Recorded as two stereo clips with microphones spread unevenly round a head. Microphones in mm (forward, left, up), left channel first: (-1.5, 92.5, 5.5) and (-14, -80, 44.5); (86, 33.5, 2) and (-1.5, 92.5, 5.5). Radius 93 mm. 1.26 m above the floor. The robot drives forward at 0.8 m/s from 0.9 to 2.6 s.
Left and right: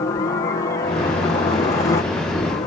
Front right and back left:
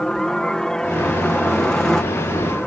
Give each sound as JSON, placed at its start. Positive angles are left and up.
{"t": 0.0, "sound": "a helicopter", "azimuth_deg": 45}